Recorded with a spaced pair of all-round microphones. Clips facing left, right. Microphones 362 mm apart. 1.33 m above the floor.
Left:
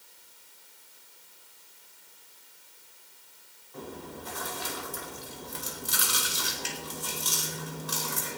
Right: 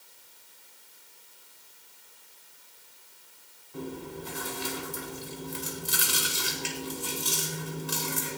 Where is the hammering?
No hammering in this recording.